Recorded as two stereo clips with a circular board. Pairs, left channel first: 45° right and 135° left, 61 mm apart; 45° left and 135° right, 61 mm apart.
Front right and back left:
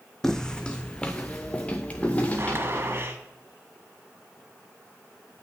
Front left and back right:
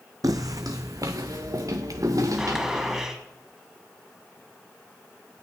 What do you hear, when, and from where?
0.2 s footsteps: 130° right, 0.7 m; by 3.1 s 110° right, 2.5 m
2.4 s a gunshot: 150° left, 2.0 m